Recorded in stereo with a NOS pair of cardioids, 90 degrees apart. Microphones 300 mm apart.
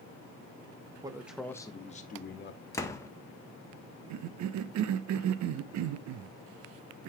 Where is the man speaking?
15° right, 1.0 m; by 2.6 s 40° left, 1.4 m.